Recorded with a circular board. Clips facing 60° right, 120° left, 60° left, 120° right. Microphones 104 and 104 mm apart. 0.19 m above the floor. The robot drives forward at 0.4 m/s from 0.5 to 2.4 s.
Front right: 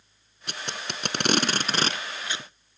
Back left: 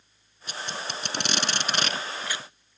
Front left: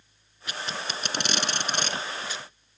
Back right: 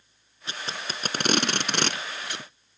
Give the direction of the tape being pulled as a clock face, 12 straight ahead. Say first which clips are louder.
Back left 1 dB, front left 1 dB; 2 o'clock.